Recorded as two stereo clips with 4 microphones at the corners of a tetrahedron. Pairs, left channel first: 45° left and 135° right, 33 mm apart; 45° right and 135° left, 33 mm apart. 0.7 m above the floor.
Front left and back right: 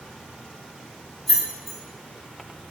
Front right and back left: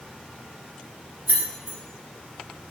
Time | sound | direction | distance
1.3 | keys jangling | 130° left | 0.6 m